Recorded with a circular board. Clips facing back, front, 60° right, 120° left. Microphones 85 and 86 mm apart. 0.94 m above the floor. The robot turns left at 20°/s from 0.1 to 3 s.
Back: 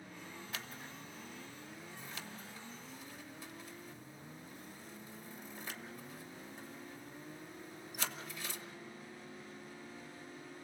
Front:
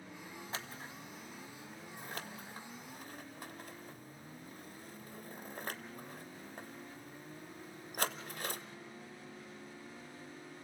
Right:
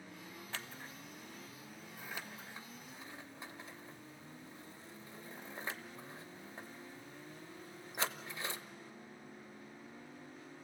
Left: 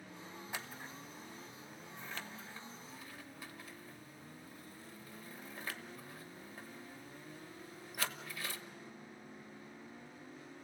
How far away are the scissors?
About 1.0 m.